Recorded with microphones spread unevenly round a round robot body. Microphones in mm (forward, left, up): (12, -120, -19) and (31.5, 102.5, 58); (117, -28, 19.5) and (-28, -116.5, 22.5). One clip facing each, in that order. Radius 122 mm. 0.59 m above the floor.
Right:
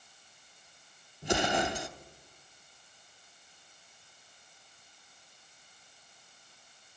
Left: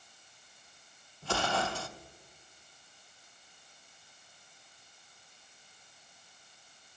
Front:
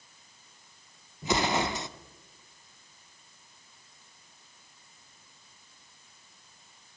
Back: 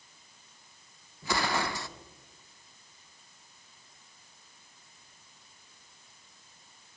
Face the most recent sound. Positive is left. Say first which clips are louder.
# right 4 dB, front 3 dB
turn(degrees=-35)